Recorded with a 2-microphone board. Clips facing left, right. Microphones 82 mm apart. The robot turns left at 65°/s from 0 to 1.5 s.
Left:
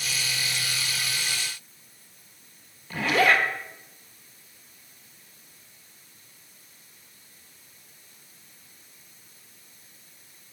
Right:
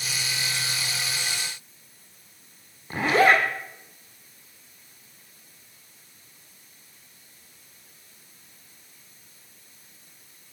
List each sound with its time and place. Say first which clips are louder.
2.9 s a zipper: right 3 dB; 30° right (ahead or behind), 1.0 m